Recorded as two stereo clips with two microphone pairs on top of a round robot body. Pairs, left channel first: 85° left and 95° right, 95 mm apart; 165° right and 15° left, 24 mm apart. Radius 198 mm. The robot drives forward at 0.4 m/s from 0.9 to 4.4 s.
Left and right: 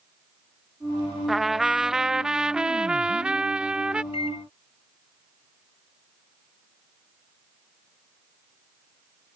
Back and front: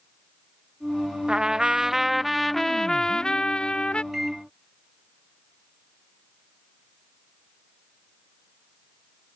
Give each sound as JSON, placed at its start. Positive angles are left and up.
{"t": 1.3, "sound": "a trumpet", "azimuth_deg": -5}
{"t": 4.1, "sound": "a microwave", "azimuth_deg": 85}